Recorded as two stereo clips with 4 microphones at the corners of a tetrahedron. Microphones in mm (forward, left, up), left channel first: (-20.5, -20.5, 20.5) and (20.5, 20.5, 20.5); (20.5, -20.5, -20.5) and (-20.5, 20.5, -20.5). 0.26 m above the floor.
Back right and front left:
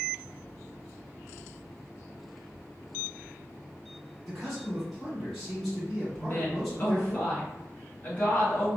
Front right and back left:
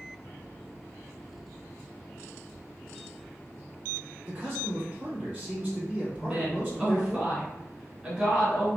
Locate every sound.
4.3 s a man speaking: 135° left, 1.8 m
6.2 s a woman speaking: 165° right, 1.6 m